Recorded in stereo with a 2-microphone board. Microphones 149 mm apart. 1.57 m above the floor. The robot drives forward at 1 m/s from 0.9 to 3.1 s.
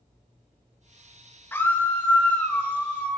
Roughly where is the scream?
Centre.